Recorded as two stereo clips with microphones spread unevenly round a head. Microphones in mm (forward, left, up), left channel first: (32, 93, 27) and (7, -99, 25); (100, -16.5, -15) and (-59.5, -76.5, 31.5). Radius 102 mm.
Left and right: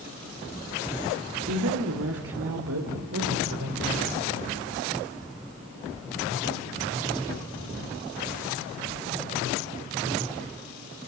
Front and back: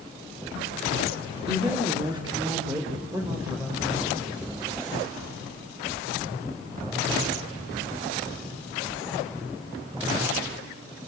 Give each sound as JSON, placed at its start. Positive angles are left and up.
{"t": 1.5, "sound": "a woman speaking", "azimuth_deg": -95, "distance_m": 3.0}